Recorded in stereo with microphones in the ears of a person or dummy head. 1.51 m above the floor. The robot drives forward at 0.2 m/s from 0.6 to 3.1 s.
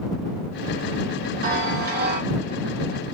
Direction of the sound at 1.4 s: 50° right (ahead or behind).